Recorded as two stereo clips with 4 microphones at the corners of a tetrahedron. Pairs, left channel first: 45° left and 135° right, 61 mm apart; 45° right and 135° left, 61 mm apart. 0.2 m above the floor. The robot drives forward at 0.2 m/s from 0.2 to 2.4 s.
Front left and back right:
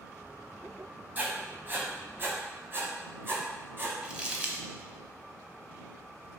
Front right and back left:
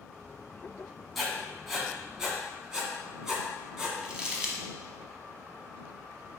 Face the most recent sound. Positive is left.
turn(degrees=-175)